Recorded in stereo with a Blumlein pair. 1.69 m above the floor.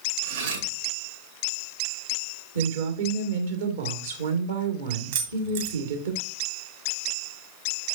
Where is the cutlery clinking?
65° right, 2.5 m.